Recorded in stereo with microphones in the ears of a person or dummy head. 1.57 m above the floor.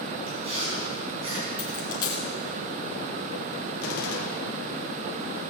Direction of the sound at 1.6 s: 20° left (ahead or behind).